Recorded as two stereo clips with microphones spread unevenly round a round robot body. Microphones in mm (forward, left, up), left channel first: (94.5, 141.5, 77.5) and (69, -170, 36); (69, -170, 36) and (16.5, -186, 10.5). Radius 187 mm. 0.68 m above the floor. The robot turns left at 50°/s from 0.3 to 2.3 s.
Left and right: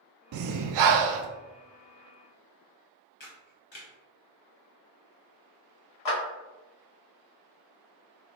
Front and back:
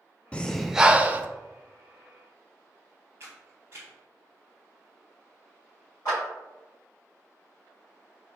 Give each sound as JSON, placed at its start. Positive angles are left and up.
{"t": 0.3, "sound": "breathing", "azimuth_deg": -70, "distance_m": 0.5}
{"t": 3.2, "sound": "a camera shutter", "azimuth_deg": 150, "distance_m": 0.6}
{"t": 6.0, "sound": "a clap", "azimuth_deg": 80, "distance_m": 1.9}